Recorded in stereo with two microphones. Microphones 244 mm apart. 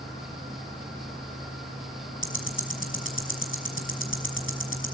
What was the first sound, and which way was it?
Ticking, 55° left (ahead or behind).